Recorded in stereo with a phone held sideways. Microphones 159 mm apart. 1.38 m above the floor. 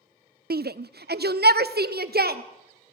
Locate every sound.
0.5 s a shout: 75° right (ahead or behind), 0.5 m